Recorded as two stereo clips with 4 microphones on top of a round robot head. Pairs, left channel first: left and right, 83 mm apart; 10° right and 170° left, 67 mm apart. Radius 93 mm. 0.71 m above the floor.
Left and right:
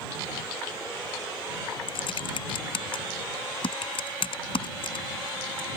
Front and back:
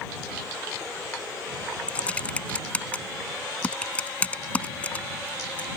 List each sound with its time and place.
1.9 s typing on a keyboard: 60° left